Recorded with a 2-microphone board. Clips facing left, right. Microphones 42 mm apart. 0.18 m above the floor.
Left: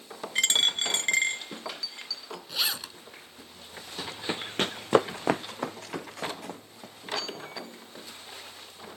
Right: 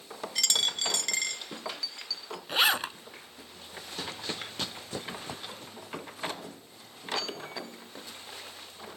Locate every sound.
0.3 s a dropped coin: 35° left (ahead or behind)
2.5 s a zipper: 40° right (ahead or behind)
4.0 s running footsteps: 5° left (ahead or behind); by 7.4 s 70° left (ahead or behind)